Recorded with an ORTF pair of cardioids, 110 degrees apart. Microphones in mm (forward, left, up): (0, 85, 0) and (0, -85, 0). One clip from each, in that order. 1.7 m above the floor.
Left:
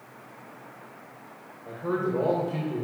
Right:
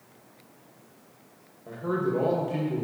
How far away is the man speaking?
About 1.9 m.